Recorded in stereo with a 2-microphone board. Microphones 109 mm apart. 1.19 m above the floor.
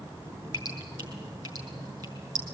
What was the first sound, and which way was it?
Dripping, 40° right (ahead or behind).